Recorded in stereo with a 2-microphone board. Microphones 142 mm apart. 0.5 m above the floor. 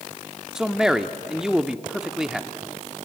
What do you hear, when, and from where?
0.6 s a man speaking: 5° right (ahead or behind), 0.8 m